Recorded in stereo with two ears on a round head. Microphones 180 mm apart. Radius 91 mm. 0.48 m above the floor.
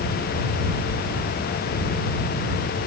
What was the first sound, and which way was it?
Only background noise.